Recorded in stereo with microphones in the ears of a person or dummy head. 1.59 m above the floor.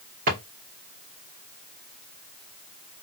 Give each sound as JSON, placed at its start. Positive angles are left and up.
{"t": 0.3, "sound": "a drawer", "side_deg": -45, "distance_m": 2.5}